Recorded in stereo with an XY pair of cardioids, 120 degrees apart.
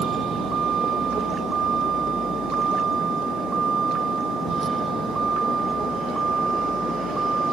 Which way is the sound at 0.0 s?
55° right.